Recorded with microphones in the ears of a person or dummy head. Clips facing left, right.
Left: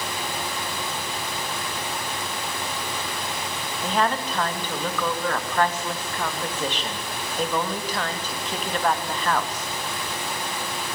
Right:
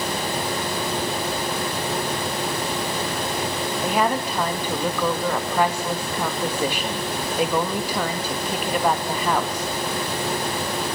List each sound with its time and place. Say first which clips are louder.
3.8 s a woman speaking: right 1 dB; 15° right (ahead or behind), 2.5 m